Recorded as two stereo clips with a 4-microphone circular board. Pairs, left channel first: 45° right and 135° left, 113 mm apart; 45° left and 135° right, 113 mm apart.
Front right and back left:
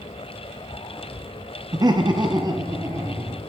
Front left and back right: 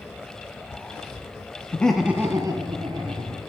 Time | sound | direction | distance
1.7 | laughter | 110° left | 0.6 m